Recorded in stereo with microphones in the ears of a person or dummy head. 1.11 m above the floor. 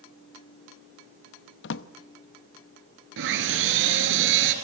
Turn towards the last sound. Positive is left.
turn(degrees=-75)  # may be behind; listen again after turning